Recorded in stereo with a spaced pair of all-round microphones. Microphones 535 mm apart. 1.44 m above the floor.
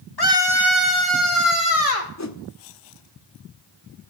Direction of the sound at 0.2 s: 45° left (ahead or behind).